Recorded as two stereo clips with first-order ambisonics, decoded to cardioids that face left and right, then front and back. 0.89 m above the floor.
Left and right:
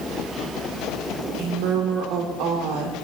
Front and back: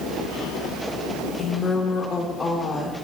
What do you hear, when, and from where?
1.4 s a woman speaking: 80° right, 2.5 m